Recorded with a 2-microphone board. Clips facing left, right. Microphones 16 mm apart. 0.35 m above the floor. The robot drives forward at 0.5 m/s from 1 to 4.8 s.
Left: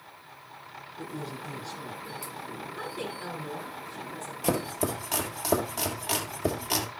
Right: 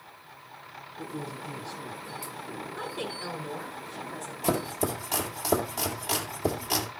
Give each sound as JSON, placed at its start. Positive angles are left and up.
{"t": 1.0, "sound": "a man speaking", "side_deg": 75, "distance_m": 4.5}
{"t": 2.8, "sound": "a woman speaking", "side_deg": 0, "distance_m": 3.0}
{"t": 4.4, "sound": "chopping", "side_deg": 15, "distance_m": 1.7}